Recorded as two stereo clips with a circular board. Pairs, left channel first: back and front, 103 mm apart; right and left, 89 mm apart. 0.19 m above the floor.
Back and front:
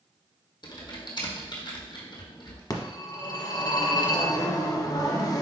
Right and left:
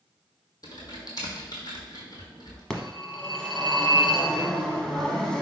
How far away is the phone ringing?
About 0.9 m.